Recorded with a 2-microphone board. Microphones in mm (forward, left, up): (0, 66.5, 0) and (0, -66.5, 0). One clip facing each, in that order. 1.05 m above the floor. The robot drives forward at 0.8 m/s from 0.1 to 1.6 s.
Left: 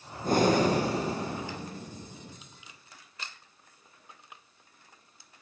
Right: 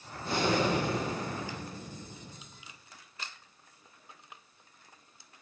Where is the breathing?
45° left (ahead or behind), 1.0 m; by 2.4 s 25° left (ahead or behind), 1.7 m.